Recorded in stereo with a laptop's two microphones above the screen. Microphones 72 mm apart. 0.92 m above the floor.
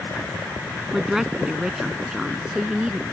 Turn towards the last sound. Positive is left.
turn(degrees=-10)  # may be behind; listen again after turning